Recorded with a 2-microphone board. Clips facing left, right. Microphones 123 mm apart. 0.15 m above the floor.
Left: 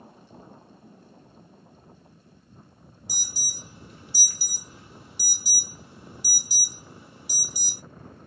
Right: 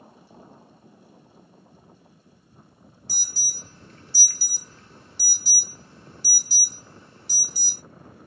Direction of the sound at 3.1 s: 15° left (ahead or behind).